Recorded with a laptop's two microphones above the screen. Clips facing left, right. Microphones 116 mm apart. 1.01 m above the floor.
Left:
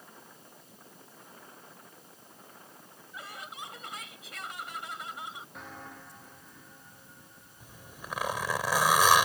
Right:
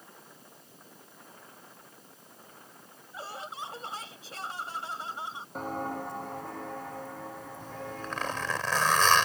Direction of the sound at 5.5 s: 40° right (ahead or behind).